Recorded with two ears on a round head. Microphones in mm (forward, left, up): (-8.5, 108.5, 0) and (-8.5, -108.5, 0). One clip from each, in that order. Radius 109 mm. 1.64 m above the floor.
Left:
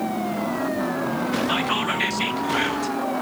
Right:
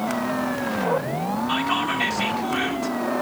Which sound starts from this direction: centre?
Whispering, at 1.5 s.